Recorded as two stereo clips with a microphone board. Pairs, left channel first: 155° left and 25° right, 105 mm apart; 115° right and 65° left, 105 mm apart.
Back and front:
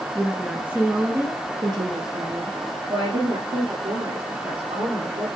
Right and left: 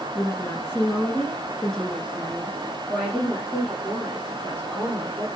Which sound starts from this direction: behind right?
A woman speaking, at 0.1 s.